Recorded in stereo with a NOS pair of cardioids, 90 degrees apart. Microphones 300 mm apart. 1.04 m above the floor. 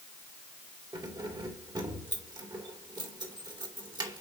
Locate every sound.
0.9 s keys jangling: 15° right, 2 m